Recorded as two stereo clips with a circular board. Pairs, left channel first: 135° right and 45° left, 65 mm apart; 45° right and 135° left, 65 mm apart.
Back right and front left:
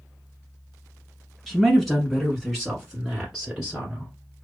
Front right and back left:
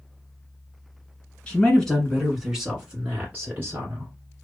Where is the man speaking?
60° right, 1.4 m; by 4.1 s 115° left, 1.7 m.